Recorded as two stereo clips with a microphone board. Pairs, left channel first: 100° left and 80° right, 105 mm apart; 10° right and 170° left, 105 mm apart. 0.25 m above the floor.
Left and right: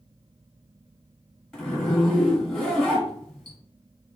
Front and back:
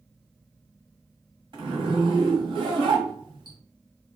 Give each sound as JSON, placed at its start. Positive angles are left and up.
{"t": 1.5, "sound": "a zipper", "azimuth_deg": -175, "distance_m": 1.5}